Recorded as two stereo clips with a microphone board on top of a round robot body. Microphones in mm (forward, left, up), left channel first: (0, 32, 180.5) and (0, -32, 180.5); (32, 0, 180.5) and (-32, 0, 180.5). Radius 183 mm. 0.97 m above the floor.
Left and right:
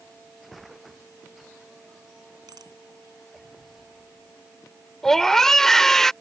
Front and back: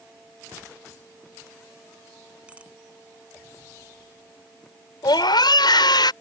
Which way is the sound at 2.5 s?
110° right.